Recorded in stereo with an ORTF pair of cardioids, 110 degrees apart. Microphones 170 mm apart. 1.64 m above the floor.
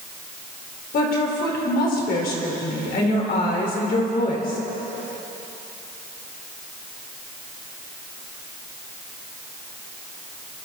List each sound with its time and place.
0.9 s a woman speaking: 60° left, 5 m